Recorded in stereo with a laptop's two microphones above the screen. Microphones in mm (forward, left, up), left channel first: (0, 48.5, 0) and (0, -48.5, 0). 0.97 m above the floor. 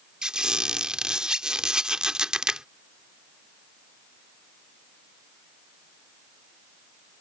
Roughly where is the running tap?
No running tap in this recording.